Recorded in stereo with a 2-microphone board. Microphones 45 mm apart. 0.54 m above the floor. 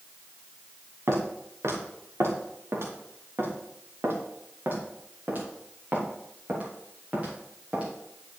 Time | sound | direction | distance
1.1 | footsteps | 85° right | 4 m